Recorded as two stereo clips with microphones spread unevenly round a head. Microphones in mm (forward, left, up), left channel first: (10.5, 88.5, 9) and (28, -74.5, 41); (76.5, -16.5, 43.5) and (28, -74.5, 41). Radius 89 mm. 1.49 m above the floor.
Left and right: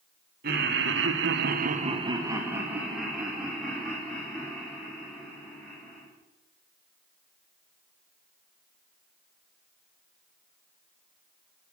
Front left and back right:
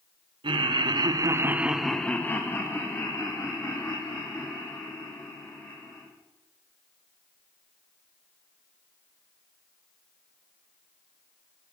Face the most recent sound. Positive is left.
turn(degrees=15)